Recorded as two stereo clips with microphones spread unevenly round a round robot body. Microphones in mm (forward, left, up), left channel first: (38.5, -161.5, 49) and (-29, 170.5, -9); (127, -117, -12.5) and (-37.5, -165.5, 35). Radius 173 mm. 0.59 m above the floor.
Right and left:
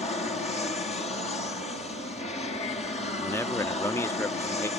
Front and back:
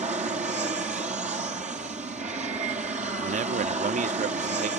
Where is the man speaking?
175° right.